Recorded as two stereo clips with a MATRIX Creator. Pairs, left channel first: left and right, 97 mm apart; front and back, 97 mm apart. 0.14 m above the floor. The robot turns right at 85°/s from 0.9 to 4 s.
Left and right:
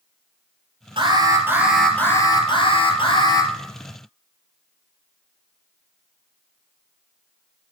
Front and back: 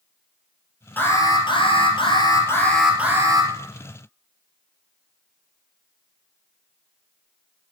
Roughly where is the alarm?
Right.